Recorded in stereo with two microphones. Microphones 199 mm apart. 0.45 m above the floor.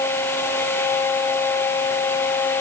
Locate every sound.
Only background noise.